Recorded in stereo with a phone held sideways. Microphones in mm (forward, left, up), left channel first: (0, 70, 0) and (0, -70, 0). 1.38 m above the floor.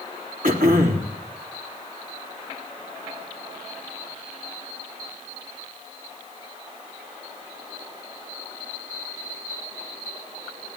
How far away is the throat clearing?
About 3.5 m.